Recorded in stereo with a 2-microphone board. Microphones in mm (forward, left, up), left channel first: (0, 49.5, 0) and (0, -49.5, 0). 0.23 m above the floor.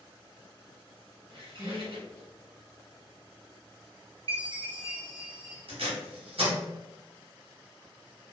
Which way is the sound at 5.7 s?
75° right (ahead or behind).